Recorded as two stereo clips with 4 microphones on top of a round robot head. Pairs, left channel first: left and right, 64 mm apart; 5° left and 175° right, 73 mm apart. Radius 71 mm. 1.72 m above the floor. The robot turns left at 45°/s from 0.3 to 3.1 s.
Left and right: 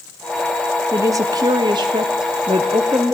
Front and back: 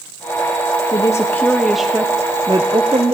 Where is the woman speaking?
50° right, 0.9 m; by 3.1 s 150° right, 0.9 m.